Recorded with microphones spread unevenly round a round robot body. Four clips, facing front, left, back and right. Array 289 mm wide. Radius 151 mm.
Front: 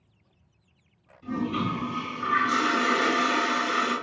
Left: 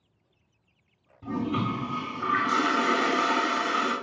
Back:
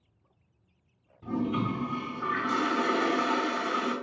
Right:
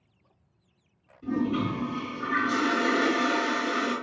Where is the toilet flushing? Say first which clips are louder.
Right 1 dB, front 1 dB; 110° left, 1.8 m.